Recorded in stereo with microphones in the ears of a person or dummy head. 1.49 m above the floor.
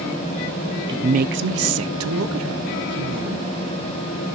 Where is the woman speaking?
20° right (ahead or behind), 0.7 m; by 3.4 s 65° right (ahead or behind), 2 m.